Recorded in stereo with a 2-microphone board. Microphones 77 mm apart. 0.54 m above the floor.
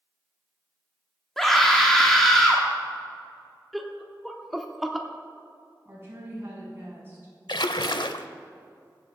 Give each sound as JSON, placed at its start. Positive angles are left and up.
{"t": 1.4, "sound": "a scream", "side_deg": 5, "distance_m": 1.2}
{"t": 3.7, "sound": "laughter", "side_deg": 0, "distance_m": 0.9}
{"t": 5.8, "sound": "a woman speaking", "side_deg": -30, "distance_m": 4.0}
{"t": 7.5, "sound": "a splash", "side_deg": 70, "distance_m": 0.5}